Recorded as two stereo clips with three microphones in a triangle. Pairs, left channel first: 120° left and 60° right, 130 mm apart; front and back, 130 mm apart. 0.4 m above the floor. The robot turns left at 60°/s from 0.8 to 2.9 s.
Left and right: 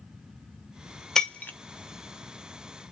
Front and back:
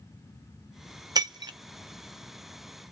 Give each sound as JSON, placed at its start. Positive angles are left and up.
{"t": 1.1, "sound": "breaking glass", "azimuth_deg": -155, "distance_m": 0.5}